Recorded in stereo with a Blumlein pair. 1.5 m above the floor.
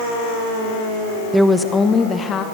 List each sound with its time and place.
1.3 s a woman speaking: straight ahead, 0.9 m; by 2.5 s 25° left, 1.4 m